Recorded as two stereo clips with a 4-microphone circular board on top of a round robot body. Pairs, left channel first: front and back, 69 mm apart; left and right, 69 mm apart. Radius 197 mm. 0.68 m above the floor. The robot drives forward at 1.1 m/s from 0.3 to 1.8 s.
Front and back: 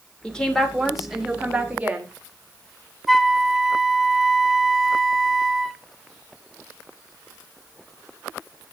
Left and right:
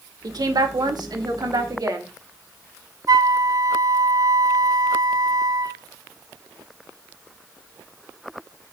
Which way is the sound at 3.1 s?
95° right.